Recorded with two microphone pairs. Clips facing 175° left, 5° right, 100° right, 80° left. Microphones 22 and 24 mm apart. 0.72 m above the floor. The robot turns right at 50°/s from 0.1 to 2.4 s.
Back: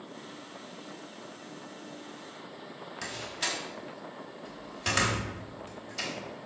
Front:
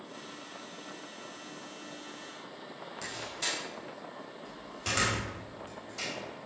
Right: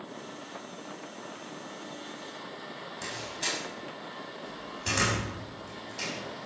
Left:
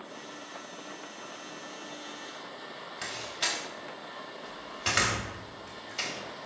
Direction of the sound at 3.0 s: 105° left.